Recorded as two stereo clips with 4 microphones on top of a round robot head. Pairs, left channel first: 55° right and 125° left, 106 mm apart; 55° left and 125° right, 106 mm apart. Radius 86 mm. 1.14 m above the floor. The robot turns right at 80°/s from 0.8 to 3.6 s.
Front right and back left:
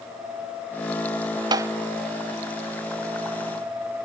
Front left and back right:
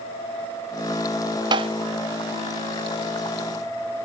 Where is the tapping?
Straight behind; by 1.7 s 165° right.